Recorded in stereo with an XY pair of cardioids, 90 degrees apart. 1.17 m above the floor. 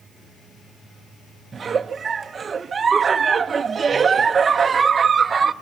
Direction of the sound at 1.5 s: 45° right.